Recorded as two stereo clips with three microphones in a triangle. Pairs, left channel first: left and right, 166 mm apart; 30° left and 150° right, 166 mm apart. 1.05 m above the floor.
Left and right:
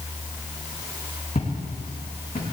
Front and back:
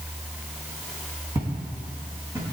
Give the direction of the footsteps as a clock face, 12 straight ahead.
7 o'clock.